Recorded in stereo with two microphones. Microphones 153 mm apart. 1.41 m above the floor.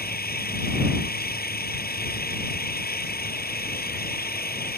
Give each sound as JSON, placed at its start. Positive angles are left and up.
{"t": 0.0, "sound": "an engine running", "side_deg": 85}